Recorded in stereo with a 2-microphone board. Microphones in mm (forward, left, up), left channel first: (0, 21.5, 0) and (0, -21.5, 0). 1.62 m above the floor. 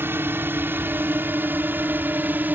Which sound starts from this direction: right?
A drone, at 0.0 s.